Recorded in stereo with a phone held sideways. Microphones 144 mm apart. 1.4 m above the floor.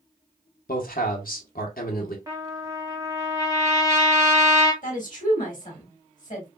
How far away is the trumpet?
About 1.5 m.